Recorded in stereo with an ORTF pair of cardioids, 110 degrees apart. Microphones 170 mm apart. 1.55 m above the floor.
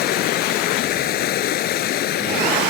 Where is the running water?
70° left.